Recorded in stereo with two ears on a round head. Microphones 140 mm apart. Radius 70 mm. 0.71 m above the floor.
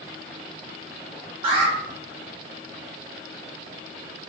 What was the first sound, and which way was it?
An alarm, 30° right (ahead or behind).